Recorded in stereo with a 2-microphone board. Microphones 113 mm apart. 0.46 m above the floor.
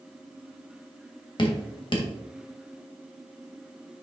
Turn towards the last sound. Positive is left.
turn(degrees=45)  # may be behind; listen again after turning